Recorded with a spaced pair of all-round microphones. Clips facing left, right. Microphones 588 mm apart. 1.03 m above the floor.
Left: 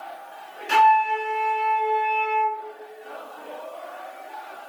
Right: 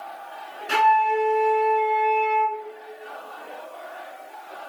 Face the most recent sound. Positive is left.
turn(degrees=-10)  # may be behind; listen again after turning